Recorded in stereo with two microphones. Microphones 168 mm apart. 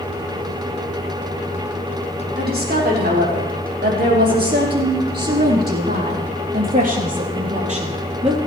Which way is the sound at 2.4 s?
70° right (ahead or behind).